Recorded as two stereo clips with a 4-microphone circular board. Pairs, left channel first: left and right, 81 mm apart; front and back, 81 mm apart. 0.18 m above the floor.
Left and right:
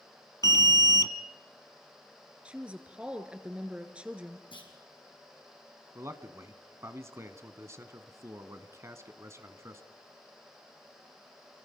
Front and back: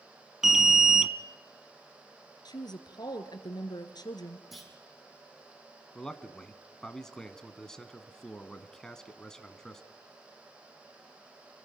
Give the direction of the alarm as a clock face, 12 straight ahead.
9 o'clock.